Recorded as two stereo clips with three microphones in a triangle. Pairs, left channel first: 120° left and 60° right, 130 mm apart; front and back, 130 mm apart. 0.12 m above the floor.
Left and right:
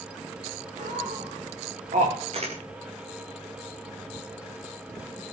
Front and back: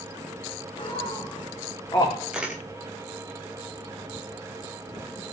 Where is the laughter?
45° right, 8 m; by 2.2 s 60° right, 8 m.